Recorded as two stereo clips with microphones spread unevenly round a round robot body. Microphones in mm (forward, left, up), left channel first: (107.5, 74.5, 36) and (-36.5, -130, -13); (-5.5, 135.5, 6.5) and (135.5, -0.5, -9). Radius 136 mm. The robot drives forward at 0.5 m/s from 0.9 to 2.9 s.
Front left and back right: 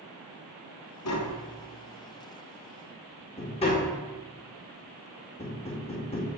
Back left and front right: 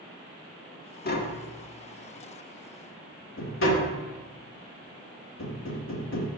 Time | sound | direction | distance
1.1 | tapping | 95° left | 1.5 m